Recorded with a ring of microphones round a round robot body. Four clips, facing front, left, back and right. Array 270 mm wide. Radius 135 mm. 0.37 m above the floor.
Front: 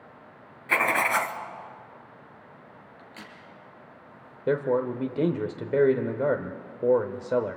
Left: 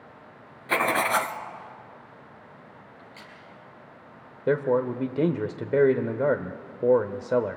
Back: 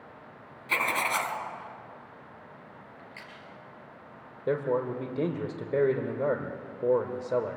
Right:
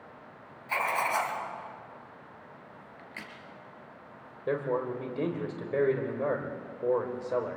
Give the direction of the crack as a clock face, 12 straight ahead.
2 o'clock.